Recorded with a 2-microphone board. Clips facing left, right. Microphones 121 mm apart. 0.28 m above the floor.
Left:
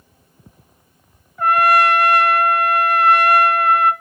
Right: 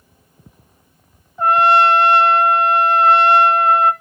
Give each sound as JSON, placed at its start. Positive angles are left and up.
{"t": 1.4, "sound": "a trumpet", "side_deg": -25, "distance_m": 0.6}